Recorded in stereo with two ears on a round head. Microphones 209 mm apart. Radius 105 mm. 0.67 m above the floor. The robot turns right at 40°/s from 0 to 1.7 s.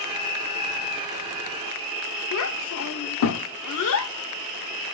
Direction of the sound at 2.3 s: 65° left (ahead or behind).